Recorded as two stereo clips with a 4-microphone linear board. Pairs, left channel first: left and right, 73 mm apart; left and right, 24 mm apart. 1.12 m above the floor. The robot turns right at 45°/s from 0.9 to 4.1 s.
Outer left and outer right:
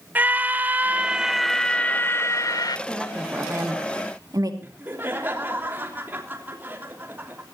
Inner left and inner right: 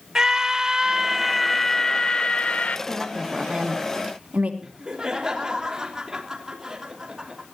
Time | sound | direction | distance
0.1 | a scream | 25° right | 0.8 m
2.9 | a woman speaking | straight behind | 2.5 m
4.6 | laughter | 30° right (ahead or behind) | 3 m